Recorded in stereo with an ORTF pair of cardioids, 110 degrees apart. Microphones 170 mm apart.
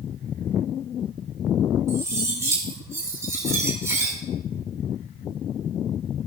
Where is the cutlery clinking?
15° right, 4.5 m.